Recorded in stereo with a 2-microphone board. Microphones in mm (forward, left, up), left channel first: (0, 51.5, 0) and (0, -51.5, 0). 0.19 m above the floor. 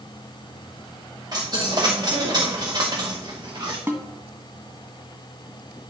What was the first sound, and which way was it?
A dropped coin, 40° right (ahead or behind).